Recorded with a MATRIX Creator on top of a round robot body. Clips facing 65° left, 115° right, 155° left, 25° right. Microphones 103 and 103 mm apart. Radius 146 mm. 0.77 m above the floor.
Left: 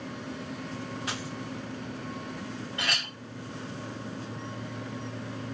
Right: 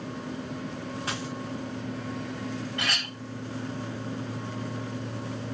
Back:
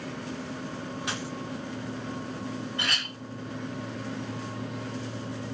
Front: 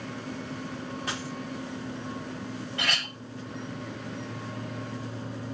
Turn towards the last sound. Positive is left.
turn(degrees=-5)